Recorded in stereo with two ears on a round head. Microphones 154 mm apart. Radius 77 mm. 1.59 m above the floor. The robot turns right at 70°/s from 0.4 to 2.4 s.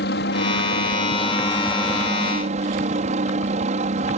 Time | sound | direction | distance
0.0 | a helicopter | 90° left | ?